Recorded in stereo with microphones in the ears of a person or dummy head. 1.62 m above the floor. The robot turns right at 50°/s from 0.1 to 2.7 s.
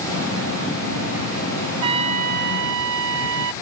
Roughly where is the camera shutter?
I don't hear a camera shutter.